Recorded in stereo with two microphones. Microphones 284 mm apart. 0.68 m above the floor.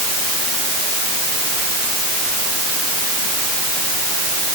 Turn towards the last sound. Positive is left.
No sound to turn to.